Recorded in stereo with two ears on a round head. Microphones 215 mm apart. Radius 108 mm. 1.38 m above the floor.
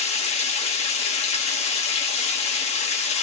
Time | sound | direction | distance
0.0 | running water | 25° left (ahead or behind) | 1.1 m